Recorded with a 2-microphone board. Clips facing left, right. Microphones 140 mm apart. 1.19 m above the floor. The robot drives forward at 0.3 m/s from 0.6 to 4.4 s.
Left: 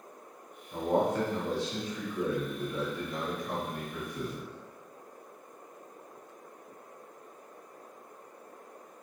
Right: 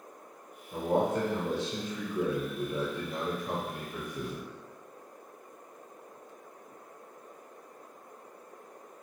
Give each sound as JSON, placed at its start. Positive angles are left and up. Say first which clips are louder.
{"t": 0.7, "sound": "a man speaking", "louder": "even", "side_deg": -15, "distance_m": 0.9}